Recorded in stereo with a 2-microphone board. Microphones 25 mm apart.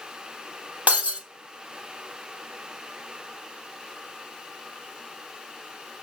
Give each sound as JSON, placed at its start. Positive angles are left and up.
{"t": 0.9, "sound": "breaking glass", "side_deg": -55, "distance_m": 4.0}